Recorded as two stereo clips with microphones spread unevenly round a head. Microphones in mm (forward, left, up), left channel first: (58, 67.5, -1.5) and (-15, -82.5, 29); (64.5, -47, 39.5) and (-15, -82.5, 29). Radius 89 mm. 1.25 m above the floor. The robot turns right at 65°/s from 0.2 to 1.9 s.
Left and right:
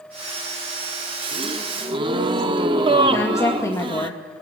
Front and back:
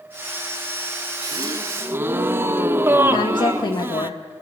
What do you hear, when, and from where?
1.2 s a gasp: 140° right, 0.9 m; by 4.1 s 95° right, 0.9 m
3.1 s a woman speaking: 10° right, 2.0 m